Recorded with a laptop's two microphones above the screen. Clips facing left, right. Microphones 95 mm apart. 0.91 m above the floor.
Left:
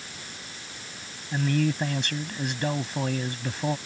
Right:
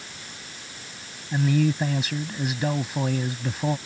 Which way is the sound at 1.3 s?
5° right (ahead or behind).